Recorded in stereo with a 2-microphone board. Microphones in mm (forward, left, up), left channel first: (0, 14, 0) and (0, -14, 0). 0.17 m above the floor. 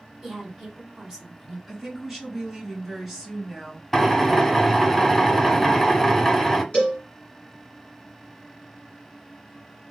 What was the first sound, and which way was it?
A woman speaking, 20° right (ahead or behind).